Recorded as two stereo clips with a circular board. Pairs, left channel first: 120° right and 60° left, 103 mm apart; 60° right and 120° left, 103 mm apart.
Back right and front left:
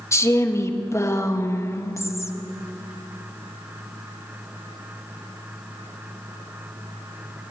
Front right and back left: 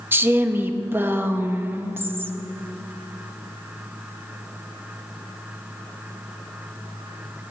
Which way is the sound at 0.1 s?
175° right.